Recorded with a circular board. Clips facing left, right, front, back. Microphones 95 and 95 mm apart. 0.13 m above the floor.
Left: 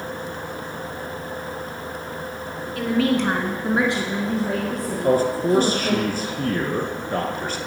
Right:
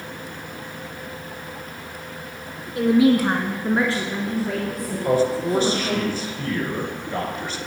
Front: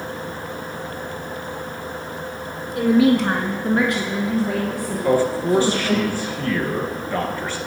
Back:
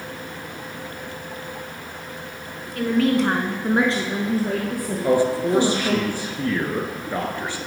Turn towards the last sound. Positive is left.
turn(degrees=115)